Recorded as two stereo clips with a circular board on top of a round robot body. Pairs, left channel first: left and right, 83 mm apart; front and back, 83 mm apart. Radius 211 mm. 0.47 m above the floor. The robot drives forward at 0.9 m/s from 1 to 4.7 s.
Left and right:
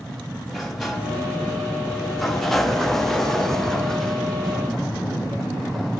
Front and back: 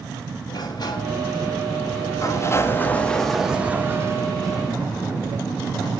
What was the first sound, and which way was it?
A sliding door, 5° left.